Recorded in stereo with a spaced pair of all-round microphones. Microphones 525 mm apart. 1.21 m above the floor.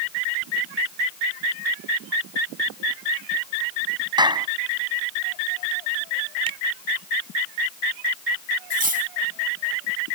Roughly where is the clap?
Centre.